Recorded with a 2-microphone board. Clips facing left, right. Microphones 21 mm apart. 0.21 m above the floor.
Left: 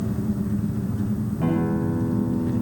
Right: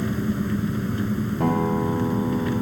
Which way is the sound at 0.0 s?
65° right (ahead or behind).